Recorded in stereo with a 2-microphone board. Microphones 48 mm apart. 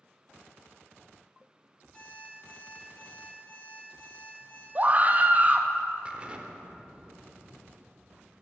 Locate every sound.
1.9 s an alarm clock: 20° left (ahead or behind), 3 m
4.8 s a scream: 30° right (ahead or behind), 0.5 m
6.0 s an explosion: 25° right (ahead or behind), 0.6 m